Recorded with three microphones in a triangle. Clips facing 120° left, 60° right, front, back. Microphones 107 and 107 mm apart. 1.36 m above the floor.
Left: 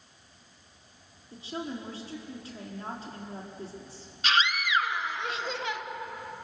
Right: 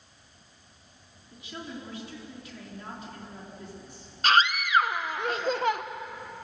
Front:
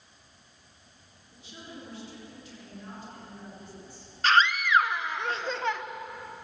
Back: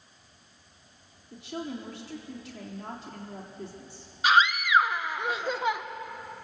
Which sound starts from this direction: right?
A scream, at 4.2 s.